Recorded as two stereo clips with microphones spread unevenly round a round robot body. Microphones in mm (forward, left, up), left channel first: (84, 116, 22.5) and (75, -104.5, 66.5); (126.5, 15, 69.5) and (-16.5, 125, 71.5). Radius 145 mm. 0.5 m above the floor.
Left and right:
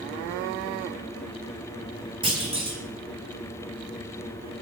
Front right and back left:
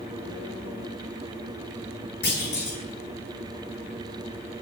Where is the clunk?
25° right, 5.5 m.